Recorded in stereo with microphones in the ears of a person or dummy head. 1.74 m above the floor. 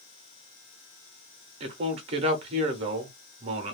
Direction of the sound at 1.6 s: 40° right (ahead or behind).